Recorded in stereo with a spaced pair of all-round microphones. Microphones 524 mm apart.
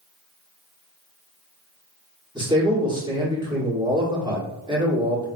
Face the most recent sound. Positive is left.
turn(degrees=-10)  # may be behind; listen again after turning